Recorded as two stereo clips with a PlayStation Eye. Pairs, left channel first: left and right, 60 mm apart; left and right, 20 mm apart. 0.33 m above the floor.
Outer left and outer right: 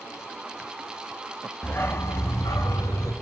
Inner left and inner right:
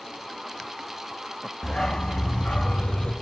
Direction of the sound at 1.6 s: 30° left (ahead or behind).